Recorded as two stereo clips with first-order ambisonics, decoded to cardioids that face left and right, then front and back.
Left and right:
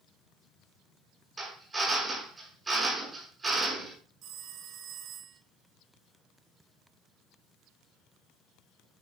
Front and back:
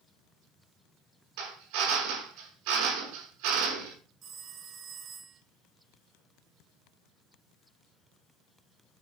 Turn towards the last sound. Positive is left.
turn(degrees=-130)